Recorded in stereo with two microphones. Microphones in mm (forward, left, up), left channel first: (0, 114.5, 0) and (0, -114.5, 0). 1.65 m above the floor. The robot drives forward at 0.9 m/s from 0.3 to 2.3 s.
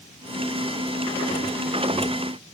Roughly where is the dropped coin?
I don't hear a dropped coin.